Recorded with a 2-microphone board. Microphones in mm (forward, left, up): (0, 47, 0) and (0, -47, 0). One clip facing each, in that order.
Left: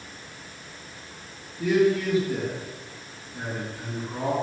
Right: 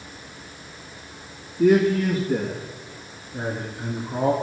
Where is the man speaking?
55° right (ahead or behind), 3 m; by 4.3 s 25° right (ahead or behind), 4 m.